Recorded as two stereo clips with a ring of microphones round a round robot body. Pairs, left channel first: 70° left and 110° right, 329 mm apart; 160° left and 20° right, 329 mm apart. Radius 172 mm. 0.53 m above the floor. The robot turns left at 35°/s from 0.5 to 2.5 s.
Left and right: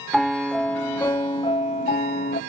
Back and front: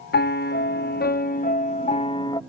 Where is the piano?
160° left; by 2.4 s 90° left.